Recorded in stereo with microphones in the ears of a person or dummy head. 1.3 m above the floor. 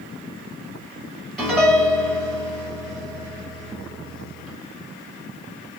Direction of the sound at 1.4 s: 5° left (ahead or behind).